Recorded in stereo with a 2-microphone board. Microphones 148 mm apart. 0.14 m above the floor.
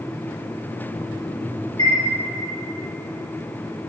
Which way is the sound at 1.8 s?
25° left (ahead or behind).